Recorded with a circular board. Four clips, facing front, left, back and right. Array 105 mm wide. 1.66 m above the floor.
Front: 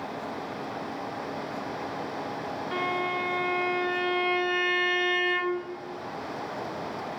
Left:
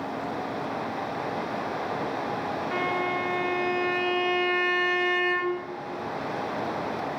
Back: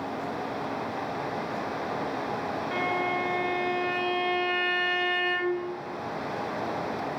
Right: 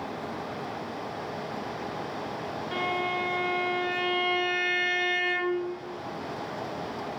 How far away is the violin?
About 1.4 m.